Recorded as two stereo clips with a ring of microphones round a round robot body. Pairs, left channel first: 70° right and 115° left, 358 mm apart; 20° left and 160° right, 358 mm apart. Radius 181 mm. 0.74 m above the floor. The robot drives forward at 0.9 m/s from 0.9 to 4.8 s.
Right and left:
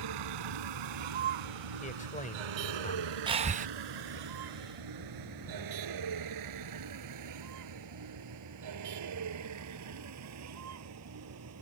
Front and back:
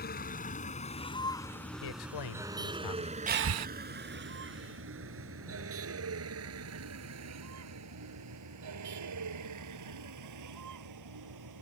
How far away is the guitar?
No guitar in this recording.